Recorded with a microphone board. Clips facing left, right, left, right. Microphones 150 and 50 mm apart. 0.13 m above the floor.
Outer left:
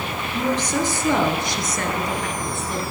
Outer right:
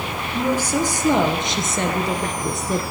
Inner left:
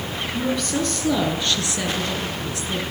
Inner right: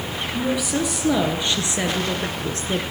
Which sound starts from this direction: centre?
A woman speaking, at 0.3 s.